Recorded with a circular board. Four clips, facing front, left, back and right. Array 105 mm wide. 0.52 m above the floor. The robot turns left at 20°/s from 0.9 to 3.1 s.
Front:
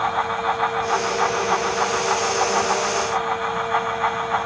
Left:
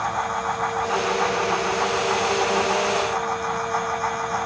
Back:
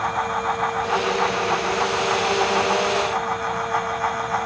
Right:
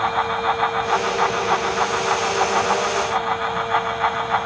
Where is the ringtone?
I don't hear a ringtone.